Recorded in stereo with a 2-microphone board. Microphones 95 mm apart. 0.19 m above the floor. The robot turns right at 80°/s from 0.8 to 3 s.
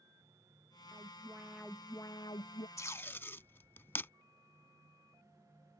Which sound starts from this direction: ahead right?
An alarm, at 0.9 s.